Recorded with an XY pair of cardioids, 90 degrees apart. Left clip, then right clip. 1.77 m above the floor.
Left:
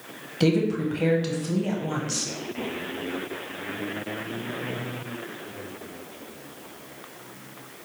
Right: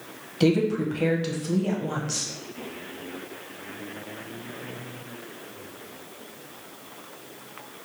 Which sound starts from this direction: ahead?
A woman speaking, at 0.4 s.